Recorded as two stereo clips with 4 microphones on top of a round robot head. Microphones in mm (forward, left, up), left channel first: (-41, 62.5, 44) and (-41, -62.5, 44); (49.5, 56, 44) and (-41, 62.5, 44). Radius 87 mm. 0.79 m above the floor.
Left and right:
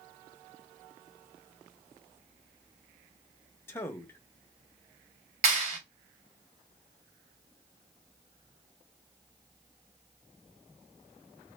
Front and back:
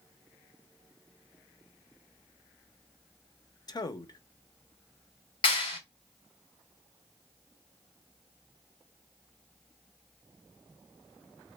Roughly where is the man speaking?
Ahead left.